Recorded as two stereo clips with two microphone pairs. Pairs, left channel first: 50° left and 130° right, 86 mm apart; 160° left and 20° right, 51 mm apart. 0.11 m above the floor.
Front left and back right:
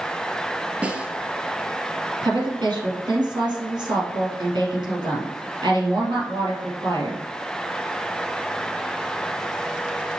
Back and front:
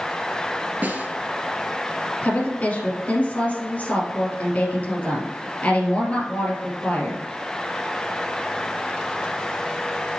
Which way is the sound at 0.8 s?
65° right.